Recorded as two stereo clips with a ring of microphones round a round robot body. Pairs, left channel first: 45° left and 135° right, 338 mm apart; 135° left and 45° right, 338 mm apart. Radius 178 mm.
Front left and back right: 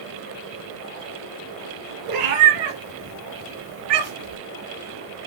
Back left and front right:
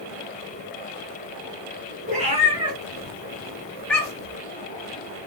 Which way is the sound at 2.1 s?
115° right.